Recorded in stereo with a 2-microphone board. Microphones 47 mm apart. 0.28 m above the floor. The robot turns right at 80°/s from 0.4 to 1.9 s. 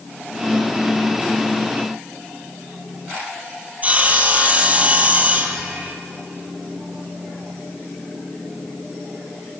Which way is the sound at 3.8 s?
30° right (ahead or behind).